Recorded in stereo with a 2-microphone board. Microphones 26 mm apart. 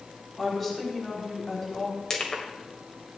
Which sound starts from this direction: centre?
A woman speaking, at 0.4 s.